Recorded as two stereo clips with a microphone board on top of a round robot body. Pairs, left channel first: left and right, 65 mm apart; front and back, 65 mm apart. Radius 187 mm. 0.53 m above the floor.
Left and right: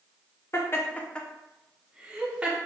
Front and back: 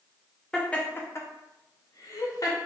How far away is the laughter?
About 0.9 m.